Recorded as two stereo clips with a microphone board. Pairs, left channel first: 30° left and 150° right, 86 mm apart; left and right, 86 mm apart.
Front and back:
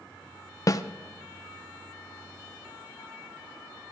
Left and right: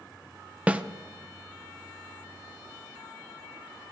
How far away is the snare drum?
About 0.5 m.